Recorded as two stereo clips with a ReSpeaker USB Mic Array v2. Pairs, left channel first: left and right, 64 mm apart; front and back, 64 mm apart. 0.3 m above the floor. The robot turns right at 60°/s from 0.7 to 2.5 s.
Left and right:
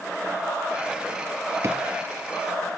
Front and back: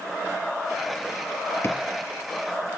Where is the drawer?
45° right, 1.3 m; by 1.8 s 35° right, 1.3 m.